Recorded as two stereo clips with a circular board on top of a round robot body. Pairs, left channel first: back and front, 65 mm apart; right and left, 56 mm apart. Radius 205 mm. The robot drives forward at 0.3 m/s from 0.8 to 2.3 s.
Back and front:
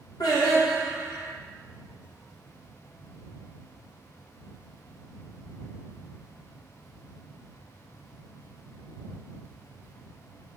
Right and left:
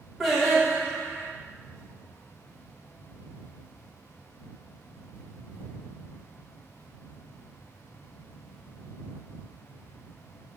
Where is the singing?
Straight behind, 2.5 m.